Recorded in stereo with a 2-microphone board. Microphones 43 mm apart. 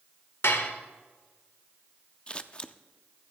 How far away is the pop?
No pop in this recording.